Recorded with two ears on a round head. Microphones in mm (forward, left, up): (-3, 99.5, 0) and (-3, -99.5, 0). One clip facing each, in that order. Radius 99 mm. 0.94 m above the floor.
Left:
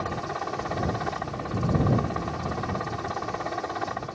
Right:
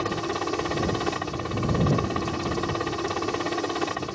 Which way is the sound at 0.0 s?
45° right (ahead or behind).